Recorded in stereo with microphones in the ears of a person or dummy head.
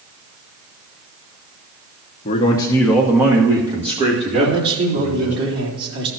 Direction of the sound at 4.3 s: 65° right (ahead or behind).